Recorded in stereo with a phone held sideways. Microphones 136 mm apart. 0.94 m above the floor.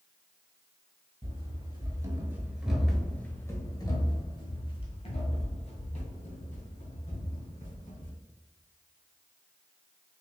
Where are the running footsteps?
40° right (ahead or behind), 1.2 m; by 8.1 s 70° left (ahead or behind), 3 m.